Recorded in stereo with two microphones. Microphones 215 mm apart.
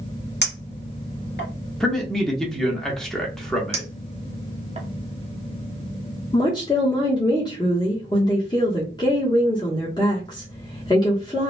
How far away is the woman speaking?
About 0.8 m.